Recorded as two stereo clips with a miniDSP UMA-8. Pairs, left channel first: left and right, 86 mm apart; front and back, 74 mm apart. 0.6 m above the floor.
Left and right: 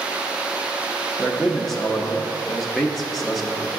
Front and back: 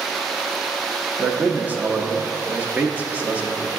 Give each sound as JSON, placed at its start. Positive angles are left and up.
{"t": 1.2, "sound": "a man speaking", "azimuth_deg": 175, "distance_m": 0.6}